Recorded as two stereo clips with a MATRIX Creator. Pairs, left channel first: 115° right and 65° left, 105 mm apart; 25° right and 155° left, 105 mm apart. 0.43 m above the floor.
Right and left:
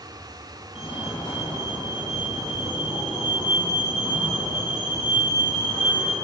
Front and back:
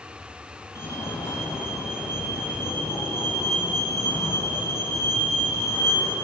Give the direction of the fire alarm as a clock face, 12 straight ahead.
3 o'clock.